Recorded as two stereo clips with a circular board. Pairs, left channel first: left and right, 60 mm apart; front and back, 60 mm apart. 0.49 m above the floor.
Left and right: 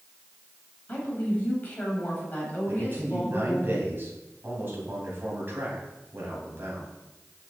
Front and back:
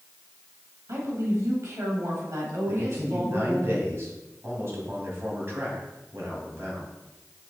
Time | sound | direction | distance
0.9 | a woman speaking | 150° left | 3 m
2.7 | a man speaking | 140° right | 3.5 m